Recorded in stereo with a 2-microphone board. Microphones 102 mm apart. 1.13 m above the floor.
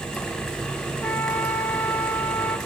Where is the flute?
20° left (ahead or behind), 1.2 m.